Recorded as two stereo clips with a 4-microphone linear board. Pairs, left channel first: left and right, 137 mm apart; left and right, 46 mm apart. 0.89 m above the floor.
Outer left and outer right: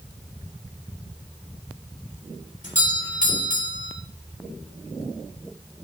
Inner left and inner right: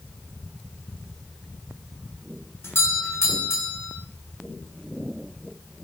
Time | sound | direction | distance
2.6 | a doorbell | 70° left (ahead or behind) | 3 m